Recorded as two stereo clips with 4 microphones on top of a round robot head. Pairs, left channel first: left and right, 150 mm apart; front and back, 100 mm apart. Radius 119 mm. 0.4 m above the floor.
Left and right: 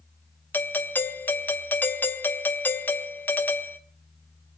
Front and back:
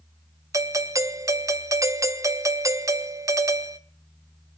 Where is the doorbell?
155° left, 1.4 m.